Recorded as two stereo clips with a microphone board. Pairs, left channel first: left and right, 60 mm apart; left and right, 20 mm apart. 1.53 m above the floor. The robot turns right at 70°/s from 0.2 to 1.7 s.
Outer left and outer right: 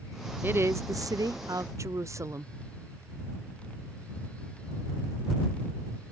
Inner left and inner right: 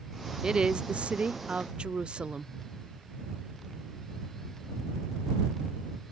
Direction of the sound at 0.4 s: 145° right.